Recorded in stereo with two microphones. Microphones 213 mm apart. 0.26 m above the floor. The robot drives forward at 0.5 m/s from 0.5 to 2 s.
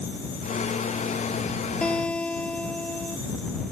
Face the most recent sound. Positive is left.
turn(degrees=5)  # may be behind; listen again after turning